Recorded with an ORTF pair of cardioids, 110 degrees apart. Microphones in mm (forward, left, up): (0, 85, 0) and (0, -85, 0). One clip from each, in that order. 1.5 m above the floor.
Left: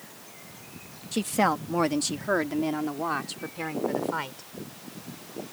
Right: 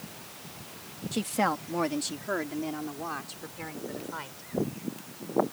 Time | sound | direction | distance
1.1 | a woman speaking | 15° left | ?